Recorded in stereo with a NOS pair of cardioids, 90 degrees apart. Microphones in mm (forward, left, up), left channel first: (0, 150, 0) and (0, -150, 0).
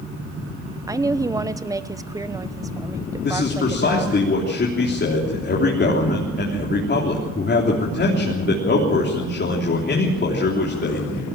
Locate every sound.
0.9 s a woman speaking: 10° right, 1.1 m
3.2 s a man speaking: 35° left, 3.5 m